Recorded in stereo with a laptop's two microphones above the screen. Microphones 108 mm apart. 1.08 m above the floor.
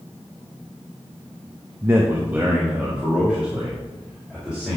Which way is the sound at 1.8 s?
25° right (ahead or behind).